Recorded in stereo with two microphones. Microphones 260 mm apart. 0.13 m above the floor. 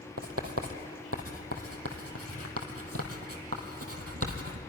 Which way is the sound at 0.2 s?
65° right (ahead or behind).